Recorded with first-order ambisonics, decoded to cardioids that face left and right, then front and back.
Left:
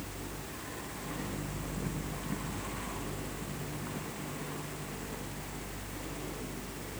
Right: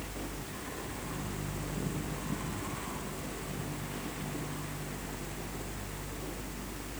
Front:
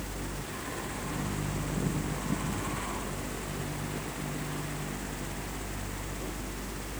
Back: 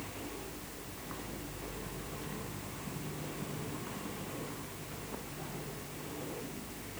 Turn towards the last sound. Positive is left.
No sound to turn to.